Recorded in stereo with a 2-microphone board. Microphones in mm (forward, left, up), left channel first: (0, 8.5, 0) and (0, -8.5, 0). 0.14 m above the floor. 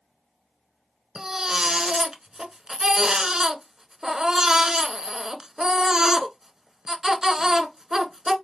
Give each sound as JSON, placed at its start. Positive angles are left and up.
{"t": 1.1, "sound": "a baby crying", "side_deg": -30, "distance_m": 1.0}